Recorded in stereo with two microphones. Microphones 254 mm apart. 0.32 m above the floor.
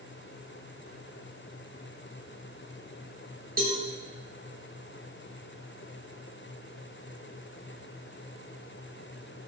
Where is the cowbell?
35° right (ahead or behind), 4.5 m.